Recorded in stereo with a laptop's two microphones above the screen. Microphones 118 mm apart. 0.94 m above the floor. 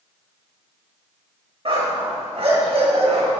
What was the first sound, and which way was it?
A dog barking, 55° right (ahead or behind).